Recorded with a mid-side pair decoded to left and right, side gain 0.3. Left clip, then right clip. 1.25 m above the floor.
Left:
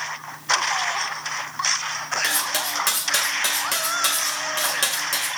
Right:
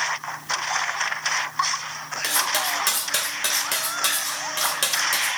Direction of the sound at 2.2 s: 5° right.